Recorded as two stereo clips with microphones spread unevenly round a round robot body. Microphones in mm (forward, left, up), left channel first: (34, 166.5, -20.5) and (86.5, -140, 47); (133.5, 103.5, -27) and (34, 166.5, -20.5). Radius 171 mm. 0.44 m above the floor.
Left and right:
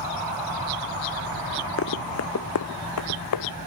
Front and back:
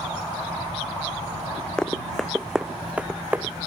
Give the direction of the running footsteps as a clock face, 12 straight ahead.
10 o'clock.